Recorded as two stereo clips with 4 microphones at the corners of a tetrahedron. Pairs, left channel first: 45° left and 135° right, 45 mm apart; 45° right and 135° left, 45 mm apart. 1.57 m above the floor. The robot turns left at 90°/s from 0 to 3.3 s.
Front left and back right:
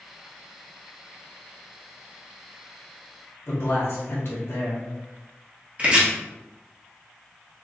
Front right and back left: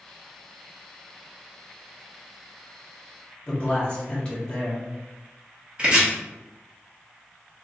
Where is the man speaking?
25° left, 1.2 m.